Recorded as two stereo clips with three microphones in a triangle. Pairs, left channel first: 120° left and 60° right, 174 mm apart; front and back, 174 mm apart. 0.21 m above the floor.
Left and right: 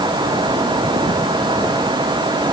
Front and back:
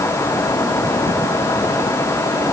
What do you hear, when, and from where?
Only background noise.